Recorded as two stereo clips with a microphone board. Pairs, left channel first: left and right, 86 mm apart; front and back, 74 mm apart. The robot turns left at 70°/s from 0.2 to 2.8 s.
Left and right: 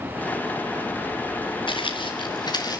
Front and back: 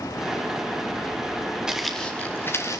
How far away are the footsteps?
About 3 m.